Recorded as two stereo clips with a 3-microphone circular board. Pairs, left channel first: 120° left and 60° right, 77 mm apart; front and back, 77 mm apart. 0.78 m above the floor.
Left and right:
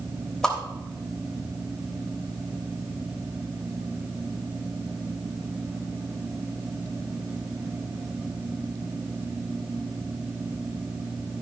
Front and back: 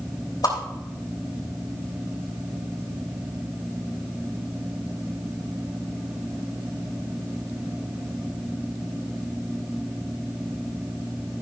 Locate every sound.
0.4 s a whoosh: 40° left, 3 m